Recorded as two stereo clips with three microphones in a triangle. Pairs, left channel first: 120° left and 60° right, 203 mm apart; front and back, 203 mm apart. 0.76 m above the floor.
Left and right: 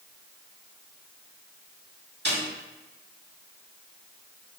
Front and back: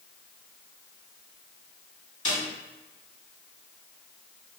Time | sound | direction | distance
2.2 | a snare drum | 45° right | 2.0 m